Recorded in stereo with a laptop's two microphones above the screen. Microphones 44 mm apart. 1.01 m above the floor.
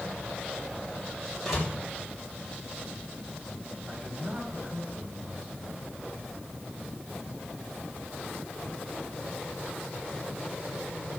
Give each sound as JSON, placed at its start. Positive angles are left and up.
{"t": 1.4, "sound": "a door slam", "side_deg": -10, "distance_m": 3.5}
{"t": 3.9, "sound": "a man speaking", "side_deg": -80, "distance_m": 4.0}